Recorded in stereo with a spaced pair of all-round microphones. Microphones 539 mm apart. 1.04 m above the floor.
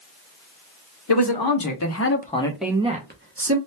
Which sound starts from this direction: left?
A man speaking, at 1.1 s.